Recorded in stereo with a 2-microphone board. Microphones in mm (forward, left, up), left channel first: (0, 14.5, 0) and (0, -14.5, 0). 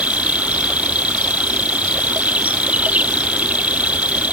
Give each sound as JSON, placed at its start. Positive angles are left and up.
{"t": 0.0, "sound": "an insect", "side_deg": -60}